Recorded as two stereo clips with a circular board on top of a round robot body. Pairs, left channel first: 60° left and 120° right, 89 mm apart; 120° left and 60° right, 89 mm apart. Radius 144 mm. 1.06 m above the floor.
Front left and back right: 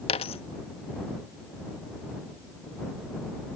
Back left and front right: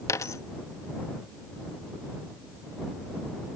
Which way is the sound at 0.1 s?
65° left.